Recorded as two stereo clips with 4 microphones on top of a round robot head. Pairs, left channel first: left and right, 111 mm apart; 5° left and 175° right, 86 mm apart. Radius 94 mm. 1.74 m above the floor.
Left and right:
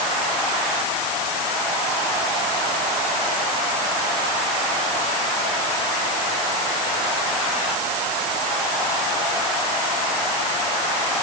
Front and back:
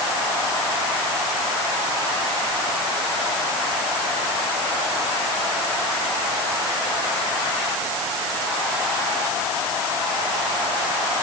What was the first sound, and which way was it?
Only background noise.